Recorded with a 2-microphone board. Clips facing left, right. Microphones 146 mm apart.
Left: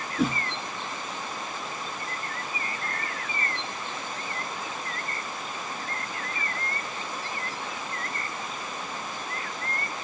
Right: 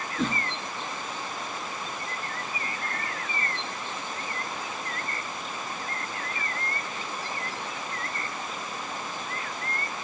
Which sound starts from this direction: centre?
A whoosh, at 0.2 s.